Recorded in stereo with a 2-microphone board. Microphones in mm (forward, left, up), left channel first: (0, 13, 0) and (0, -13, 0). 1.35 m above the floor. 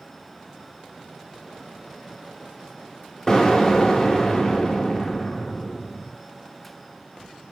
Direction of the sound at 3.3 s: 25° left (ahead or behind).